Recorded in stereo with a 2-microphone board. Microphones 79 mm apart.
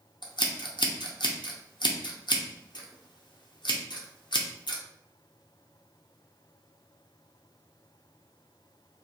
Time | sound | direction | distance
0.2 | scissors | 75° left (ahead or behind) | 0.6 m